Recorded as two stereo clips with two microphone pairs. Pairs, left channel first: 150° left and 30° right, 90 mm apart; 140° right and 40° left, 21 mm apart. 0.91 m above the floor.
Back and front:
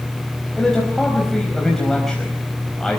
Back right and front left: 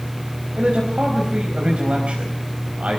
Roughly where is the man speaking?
Ahead left.